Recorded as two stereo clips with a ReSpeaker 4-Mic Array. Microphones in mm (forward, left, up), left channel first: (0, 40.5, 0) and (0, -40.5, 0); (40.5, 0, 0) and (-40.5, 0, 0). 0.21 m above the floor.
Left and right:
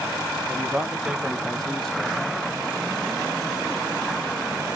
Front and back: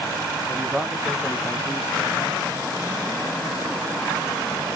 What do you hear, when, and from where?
0.5 s a man speaking: 125° right, 1.0 m; by 2.4 s 25° left, 1.2 m